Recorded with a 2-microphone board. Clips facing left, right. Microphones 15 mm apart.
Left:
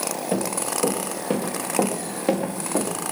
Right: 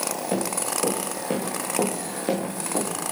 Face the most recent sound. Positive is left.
turn(degrees=15)  # may be behind; listen again after turning